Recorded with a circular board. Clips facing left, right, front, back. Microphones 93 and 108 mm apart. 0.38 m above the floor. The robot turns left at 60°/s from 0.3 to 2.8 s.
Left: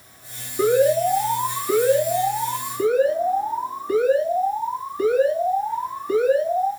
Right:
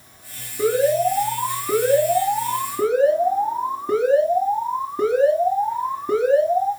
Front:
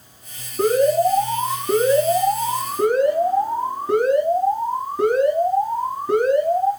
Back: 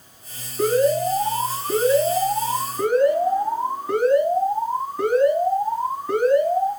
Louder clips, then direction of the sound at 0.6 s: Left 1 dB, front 2 dB; 60° left.